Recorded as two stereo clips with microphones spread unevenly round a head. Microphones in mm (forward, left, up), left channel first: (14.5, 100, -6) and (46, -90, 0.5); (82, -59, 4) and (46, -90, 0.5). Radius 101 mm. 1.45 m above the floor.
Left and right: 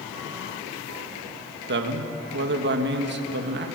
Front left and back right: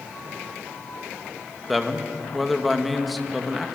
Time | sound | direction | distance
1.7 | a man speaking | 50° right | 1.8 m